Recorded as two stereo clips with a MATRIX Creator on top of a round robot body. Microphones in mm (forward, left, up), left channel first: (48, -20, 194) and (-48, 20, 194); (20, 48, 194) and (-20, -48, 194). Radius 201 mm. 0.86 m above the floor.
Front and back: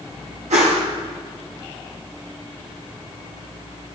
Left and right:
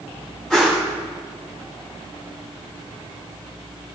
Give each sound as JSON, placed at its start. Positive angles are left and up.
{"t": 0.5, "sound": "a whoosh", "azimuth_deg": 145, "distance_m": 0.9}